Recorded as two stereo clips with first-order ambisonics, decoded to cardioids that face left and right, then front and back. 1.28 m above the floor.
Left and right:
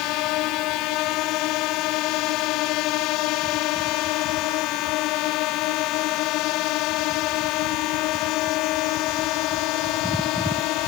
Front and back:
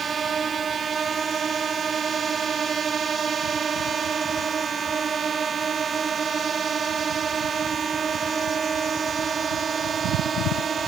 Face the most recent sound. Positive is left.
turn(degrees=110)